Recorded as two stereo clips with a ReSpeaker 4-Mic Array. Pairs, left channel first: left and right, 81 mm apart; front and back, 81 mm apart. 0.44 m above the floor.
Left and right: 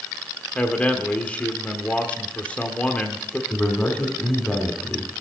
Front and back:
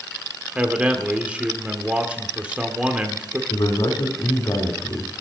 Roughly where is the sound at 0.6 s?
Behind left.